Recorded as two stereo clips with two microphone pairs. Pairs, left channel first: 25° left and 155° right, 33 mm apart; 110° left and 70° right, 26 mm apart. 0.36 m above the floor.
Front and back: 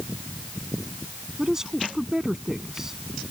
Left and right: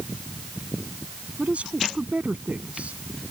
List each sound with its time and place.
1.4 s a woman speaking: 85° right